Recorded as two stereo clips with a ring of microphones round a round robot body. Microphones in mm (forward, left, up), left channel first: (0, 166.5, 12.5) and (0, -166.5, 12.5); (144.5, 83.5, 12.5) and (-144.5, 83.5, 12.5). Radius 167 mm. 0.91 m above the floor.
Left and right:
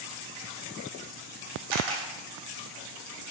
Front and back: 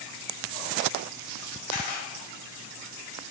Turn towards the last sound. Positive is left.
turn(degrees=-70)